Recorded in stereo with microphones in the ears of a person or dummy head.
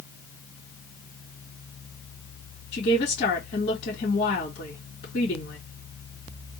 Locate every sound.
2.7 s a woman speaking: 45° left (ahead or behind), 2 m